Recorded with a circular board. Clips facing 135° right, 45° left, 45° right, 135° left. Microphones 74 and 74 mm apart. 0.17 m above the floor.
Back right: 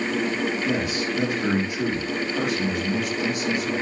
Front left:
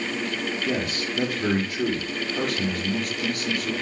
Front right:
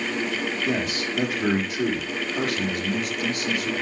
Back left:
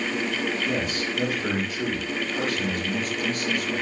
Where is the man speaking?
65° right, 3.5 m.